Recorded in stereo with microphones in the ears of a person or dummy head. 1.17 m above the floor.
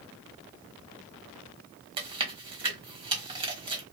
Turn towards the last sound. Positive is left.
turn(degrees=-35)  # may be behind; listen again after turning